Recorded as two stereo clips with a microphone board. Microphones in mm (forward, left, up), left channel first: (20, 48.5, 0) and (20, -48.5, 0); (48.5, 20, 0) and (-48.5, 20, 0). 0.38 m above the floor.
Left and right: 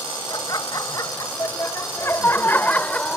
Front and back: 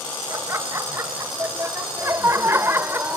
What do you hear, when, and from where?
0.3 s laughter: 125° left; by 3.2 s 160° left